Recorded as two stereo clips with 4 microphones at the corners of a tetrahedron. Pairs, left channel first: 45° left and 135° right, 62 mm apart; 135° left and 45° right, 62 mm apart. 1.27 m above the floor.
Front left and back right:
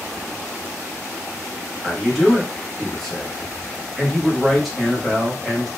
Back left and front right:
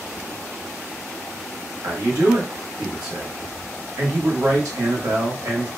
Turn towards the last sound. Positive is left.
turn(degrees=-45)